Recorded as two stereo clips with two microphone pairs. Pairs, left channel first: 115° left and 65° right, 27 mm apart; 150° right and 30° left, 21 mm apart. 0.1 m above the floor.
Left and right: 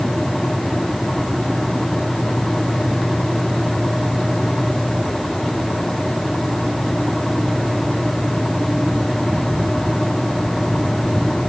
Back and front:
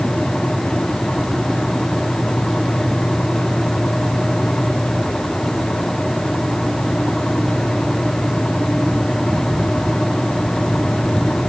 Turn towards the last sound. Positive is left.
No sound to turn to.